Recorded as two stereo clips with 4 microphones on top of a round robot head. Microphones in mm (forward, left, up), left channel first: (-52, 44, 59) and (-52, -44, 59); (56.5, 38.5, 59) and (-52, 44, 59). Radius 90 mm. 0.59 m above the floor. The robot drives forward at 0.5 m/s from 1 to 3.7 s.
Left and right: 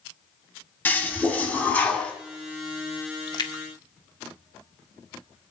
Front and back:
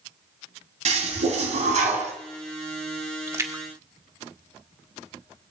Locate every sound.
0.8 s a toilet flushing: 160° left, 2.5 m; by 2.1 s 165° left, 3 m
3.3 s a splash: 115° left, 1.4 m; by 5.0 s 120° left, 1.5 m